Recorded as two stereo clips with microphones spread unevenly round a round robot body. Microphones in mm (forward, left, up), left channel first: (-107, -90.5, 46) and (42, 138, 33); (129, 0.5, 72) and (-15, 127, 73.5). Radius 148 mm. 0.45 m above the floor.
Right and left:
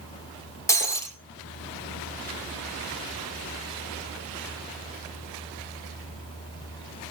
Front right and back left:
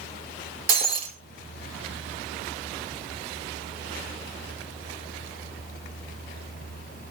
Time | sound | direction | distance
0.7 | breaking glass | 155° left | 4 m